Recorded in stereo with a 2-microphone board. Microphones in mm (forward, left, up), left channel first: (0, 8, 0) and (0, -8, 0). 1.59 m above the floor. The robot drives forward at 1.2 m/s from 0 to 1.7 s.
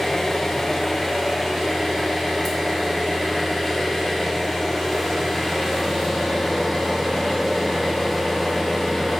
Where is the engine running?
25° left (ahead or behind), 1.0 m; by 9.2 s 15° left (ahead or behind), 1.9 m.